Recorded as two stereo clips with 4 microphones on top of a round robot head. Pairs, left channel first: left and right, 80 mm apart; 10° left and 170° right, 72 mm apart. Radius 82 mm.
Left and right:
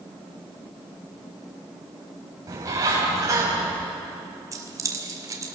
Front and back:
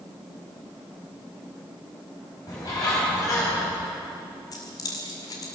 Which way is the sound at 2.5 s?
40° right.